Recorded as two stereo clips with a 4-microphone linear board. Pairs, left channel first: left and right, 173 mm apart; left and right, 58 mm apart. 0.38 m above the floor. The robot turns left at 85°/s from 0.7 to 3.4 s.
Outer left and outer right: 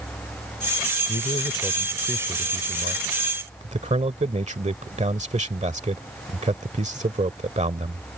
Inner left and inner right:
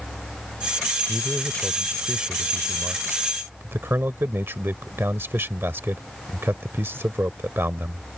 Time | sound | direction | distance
1.1 | a man speaking | 75° left | ?